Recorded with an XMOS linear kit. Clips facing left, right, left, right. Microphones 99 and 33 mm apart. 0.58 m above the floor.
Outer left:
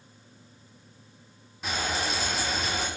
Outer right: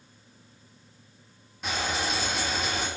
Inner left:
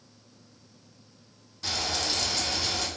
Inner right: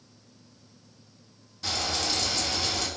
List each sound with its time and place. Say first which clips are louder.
1.6 s frying: even, inner right 1 dB; centre (ahead or behind), 1.1 m